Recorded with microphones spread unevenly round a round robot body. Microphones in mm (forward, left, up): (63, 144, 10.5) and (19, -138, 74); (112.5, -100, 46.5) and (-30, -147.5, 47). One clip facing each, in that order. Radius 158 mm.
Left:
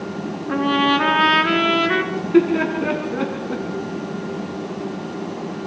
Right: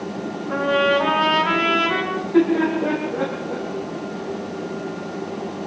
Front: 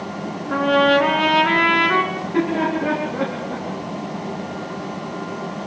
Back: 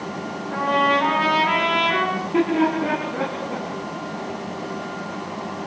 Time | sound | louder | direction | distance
0.5 | a trumpet | left 1 dB, front 5 dB | 65° left | 4 m
2.1 | laughter | left 1 dB, back 1 dB | 120° left | 3.5 m